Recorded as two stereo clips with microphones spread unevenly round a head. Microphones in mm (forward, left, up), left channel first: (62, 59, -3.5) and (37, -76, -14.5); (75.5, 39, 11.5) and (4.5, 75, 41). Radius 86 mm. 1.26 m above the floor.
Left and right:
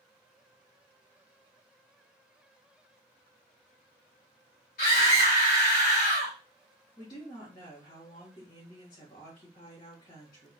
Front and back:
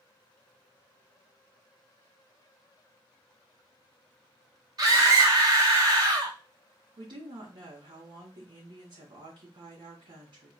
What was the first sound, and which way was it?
A scream, 115° left.